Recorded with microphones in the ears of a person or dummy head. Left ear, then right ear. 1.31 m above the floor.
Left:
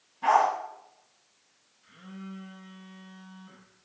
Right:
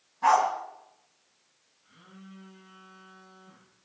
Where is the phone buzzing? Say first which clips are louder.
Left 6 dB; 80° left, 7.5 m.